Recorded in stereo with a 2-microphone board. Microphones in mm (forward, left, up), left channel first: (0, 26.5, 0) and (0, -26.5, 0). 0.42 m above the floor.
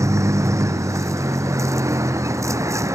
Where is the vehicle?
80° right.